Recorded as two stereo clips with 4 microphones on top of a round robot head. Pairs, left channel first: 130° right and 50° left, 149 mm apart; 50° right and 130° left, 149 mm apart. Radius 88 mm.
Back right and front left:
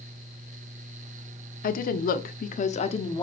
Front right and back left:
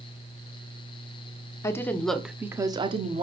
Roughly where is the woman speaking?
Behind right.